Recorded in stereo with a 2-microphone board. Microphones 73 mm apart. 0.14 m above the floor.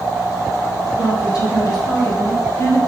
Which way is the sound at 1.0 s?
60° left (ahead or behind).